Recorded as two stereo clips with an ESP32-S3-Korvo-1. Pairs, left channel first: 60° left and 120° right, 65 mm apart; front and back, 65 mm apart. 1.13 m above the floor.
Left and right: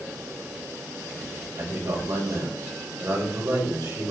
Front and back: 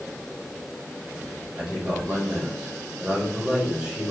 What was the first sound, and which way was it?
A man speaking, 100° right.